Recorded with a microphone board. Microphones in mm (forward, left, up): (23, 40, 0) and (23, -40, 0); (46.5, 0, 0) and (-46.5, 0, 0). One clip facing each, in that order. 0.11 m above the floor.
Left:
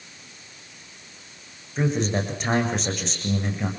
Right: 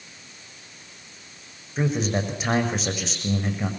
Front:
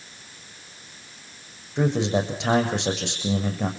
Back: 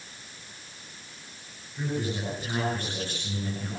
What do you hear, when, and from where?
1.8 s a man speaking: straight ahead, 7 m